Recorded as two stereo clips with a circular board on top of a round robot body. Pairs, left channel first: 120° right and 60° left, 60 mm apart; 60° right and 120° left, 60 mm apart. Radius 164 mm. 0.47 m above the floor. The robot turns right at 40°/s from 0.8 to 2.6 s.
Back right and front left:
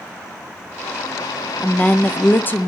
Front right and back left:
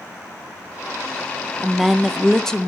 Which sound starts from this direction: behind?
A woman speaking, at 1.6 s.